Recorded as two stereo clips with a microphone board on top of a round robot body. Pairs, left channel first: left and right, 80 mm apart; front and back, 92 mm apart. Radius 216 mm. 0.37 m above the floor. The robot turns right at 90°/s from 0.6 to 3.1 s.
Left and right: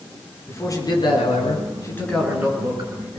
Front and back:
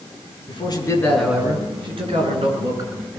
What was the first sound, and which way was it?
A man speaking, 30° left.